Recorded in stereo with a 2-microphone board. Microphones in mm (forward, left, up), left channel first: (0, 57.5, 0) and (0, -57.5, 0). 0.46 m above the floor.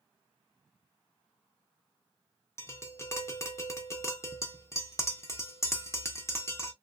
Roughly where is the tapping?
Left.